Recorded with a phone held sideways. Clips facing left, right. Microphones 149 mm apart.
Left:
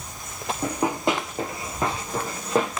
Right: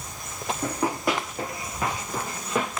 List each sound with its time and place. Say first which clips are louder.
0.6 s running footsteps: left 2 dB; 20° left (ahead or behind), 1.2 m; by 2.8 s 35° left (ahead or behind), 1.7 m